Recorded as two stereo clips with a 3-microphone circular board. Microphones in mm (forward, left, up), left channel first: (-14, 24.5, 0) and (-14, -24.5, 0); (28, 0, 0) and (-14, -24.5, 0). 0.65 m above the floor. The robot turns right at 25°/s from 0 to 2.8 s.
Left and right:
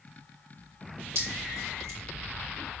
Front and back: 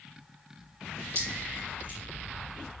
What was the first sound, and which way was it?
Dripping, 110° right.